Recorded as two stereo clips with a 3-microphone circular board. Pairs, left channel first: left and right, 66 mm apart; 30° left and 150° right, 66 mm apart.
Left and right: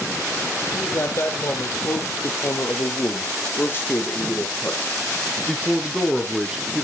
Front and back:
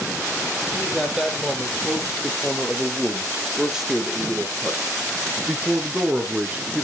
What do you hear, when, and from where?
0.7 s a man speaking: 120° left, 3.5 m; by 6.8 s 130° right, 1.5 m